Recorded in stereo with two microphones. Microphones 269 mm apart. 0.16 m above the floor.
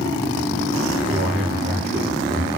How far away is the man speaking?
About 4 m.